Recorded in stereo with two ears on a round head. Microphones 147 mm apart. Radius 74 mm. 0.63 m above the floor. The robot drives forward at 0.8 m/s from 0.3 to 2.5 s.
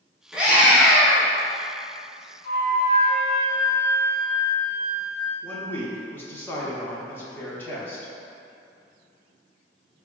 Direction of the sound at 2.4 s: 35° right (ahead or behind).